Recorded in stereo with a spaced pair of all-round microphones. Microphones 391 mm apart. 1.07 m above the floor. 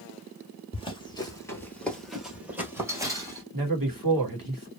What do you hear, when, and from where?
0.7 s running footsteps: 15° left (ahead or behind), 1.1 m; by 3.4 s 10° right (ahead or behind), 1.5 m
3.5 s a man speaking: 55° right (ahead or behind), 1.3 m